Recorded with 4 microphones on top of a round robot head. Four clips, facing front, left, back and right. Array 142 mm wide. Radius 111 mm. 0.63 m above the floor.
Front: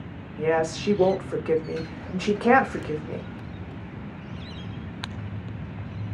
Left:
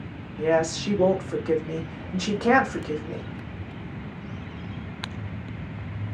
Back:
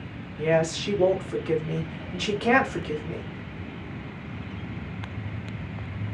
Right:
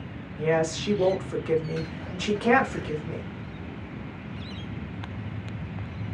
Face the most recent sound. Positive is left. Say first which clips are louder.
# left 2 dB, even
turn(degrees=20)